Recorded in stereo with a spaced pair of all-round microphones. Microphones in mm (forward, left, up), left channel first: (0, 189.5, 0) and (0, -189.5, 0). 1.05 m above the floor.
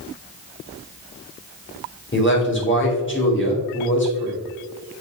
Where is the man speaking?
30° left (ahead or behind), 1.9 m.